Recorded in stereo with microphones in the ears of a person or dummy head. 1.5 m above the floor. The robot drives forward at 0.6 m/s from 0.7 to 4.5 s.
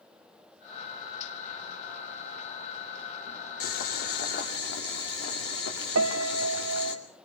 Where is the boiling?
60° left (ahead or behind), 2.5 m; by 7.0 s 70° left (ahead or behind), 2 m.